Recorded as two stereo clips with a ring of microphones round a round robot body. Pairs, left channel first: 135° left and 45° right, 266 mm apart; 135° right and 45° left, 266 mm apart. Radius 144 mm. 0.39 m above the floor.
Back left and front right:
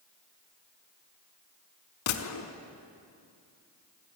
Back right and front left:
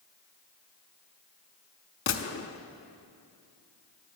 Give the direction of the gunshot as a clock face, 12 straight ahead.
6 o'clock.